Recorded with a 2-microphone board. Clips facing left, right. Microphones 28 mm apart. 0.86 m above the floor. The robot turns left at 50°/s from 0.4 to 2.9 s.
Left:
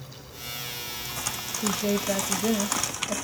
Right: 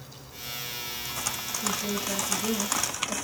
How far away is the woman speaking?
About 0.9 m.